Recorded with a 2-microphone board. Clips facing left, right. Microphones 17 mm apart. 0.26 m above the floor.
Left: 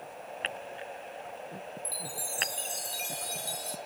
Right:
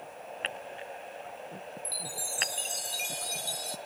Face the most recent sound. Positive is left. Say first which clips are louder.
# right 3 dB
turn(degrees=-15)  # may be behind; listen again after turning